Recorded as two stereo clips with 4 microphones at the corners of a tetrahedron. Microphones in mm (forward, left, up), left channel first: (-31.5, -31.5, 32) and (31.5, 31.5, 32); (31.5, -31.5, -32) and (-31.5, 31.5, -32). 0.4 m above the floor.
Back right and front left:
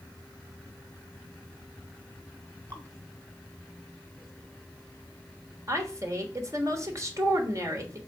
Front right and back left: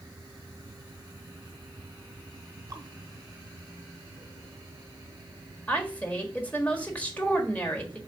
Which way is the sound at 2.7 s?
80° left.